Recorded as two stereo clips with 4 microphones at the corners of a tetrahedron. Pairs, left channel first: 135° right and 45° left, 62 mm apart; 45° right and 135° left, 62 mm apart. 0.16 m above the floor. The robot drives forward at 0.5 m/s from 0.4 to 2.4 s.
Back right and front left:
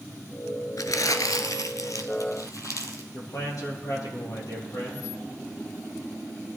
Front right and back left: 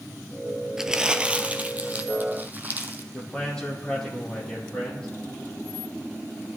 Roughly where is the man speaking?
Behind right.